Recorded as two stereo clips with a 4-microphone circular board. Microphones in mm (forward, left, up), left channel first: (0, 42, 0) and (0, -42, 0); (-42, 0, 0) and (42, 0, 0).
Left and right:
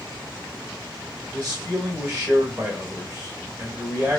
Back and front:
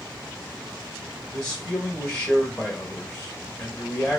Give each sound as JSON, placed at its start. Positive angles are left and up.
{"t": 1.3, "sound": "a man speaking", "azimuth_deg": -140, "distance_m": 0.9}